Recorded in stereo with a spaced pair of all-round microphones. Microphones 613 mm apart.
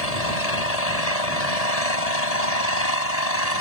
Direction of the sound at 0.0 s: 85° left.